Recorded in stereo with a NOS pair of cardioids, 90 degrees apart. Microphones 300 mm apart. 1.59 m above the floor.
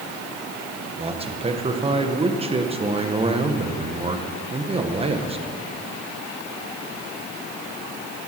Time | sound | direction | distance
1.0 | a man speaking | 20° right | 1.4 m